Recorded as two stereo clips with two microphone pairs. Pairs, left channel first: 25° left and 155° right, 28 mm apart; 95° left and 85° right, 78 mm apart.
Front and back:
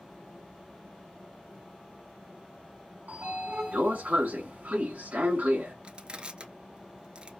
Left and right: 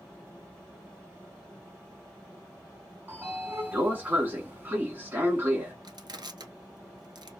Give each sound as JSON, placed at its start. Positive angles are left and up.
{"t": 3.1, "sound": "a sliding door", "azimuth_deg": -155, "distance_m": 1.2}
{"t": 5.8, "sound": "crushing", "azimuth_deg": -105, "distance_m": 0.9}